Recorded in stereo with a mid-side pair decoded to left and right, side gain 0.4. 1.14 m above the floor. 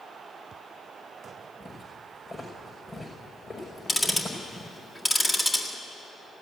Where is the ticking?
20° left, 1.9 m.